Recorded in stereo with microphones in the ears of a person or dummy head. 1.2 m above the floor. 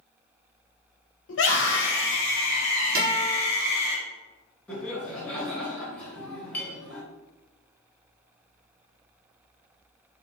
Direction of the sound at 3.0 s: 50° right (ahead or behind).